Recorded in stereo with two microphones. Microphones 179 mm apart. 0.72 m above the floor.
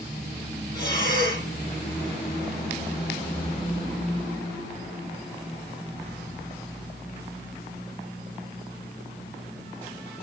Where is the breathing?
20° left (ahead or behind), 7.5 m.